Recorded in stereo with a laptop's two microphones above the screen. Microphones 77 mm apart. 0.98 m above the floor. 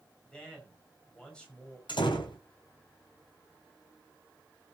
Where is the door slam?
80° left, 3.5 m.